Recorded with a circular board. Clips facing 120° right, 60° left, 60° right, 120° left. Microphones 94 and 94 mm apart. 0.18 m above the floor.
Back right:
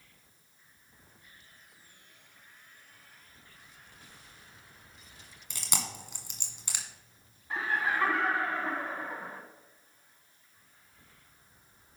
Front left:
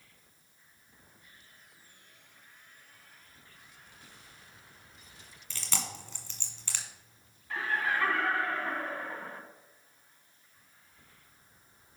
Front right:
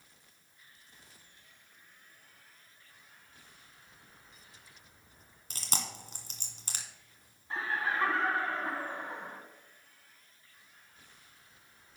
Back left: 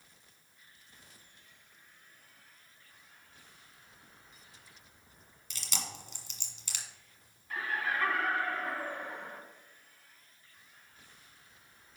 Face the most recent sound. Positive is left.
turn(degrees=-80)